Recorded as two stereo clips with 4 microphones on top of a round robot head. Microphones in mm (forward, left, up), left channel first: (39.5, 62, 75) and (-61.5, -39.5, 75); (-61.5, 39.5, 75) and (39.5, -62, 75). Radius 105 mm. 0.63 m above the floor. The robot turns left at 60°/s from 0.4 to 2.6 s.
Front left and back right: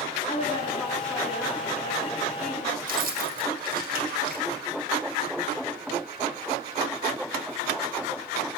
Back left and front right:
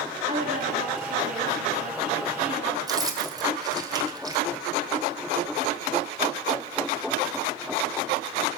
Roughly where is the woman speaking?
Ahead.